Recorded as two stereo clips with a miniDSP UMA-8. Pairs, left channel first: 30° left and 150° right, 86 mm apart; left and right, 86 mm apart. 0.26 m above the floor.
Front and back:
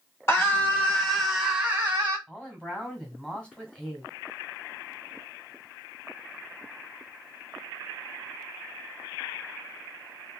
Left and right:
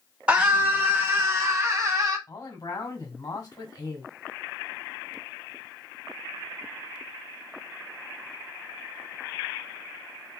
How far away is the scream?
About 1.6 m.